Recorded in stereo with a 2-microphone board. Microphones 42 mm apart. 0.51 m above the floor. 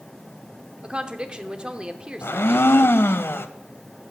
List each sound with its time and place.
0.8 s a woman speaking: 25° right (ahead or behind), 1.0 m
2.2 s a blender: 85° left, 0.7 m